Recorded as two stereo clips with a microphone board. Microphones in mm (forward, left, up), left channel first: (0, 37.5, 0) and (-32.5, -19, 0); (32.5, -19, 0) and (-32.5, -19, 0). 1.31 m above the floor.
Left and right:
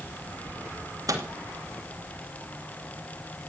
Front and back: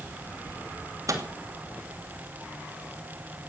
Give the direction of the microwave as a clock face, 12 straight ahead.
5 o'clock.